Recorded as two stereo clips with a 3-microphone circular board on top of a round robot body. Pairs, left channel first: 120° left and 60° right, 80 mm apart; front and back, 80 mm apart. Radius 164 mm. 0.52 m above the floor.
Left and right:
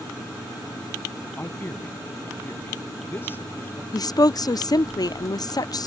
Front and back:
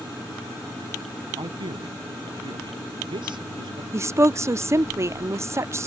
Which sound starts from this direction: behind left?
A woman speaking, at 3.9 s.